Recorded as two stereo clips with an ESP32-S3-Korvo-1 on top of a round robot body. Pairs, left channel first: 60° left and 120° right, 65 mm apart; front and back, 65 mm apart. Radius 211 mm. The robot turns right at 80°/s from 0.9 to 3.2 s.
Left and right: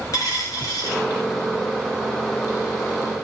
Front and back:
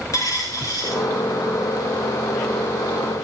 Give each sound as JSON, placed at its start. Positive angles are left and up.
{"t": 0.1, "sound": "a dropped coin", "azimuth_deg": 30, "distance_m": 5.0}